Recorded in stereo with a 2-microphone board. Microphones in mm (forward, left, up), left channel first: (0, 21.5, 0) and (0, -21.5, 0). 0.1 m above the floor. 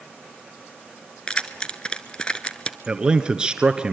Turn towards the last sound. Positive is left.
turn(degrees=-20)  # may be behind; listen again after turning